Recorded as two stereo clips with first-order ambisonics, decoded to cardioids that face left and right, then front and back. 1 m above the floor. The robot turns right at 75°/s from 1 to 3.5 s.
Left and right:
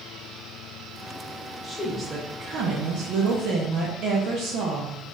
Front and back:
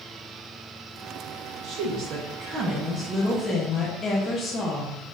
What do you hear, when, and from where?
1.6 s a woman speaking: 160° left, 0.8 m; by 5.1 s 60° right, 0.8 m